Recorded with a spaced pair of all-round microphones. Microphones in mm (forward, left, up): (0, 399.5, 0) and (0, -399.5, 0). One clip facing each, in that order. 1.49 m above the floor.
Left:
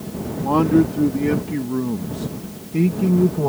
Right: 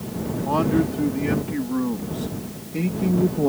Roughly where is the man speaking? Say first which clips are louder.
Left 5 dB; left.